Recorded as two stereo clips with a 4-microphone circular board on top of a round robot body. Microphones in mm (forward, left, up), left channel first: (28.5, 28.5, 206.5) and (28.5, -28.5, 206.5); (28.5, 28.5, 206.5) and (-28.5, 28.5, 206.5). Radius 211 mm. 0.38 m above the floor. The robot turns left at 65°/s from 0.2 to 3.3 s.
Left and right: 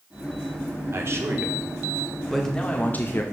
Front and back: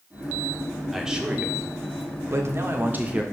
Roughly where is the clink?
No clink in this recording.